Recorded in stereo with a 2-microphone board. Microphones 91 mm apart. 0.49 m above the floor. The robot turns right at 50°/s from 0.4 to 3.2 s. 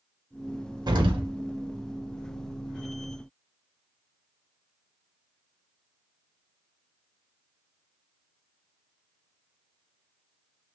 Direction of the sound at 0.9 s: 50° right (ahead or behind).